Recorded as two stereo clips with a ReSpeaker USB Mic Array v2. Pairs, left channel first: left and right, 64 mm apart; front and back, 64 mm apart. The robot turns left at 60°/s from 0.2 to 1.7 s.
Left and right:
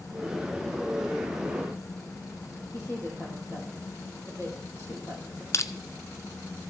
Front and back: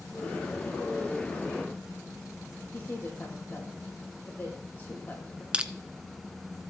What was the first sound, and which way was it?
A woman speaking, 50° left.